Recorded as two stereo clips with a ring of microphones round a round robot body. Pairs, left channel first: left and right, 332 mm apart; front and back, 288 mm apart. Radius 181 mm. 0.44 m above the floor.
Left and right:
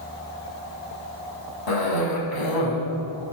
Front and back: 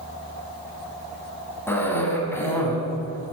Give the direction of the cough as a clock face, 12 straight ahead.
9 o'clock.